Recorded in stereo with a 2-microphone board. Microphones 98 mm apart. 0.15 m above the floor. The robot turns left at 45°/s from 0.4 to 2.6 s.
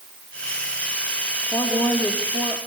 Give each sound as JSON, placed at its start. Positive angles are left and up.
{"t": 1.5, "sound": "a woman speaking", "azimuth_deg": 25, "distance_m": 4.5}